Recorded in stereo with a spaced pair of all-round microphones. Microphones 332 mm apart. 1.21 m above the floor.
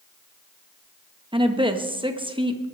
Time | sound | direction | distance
1.3 | a woman speaking | 15° right (ahead or behind) | 1.3 m